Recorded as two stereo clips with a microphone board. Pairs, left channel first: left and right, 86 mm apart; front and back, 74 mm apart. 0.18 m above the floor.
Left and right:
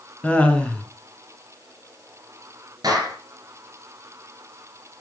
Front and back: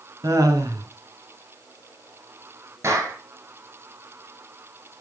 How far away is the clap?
About 6 m.